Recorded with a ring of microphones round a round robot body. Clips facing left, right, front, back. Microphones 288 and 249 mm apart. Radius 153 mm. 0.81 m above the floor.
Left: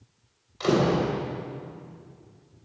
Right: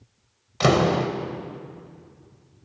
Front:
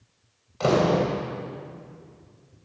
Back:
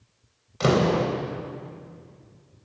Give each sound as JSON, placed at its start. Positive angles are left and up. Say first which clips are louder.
{"t": 0.6, "sound": "a door slam", "louder": "right 2 dB, even", "azimuth_deg": -110, "distance_m": 3.0}